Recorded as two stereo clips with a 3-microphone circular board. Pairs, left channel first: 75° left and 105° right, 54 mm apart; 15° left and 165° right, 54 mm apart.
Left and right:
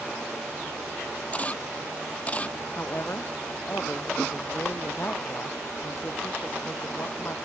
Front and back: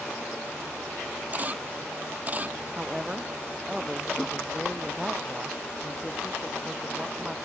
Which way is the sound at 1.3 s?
140° left.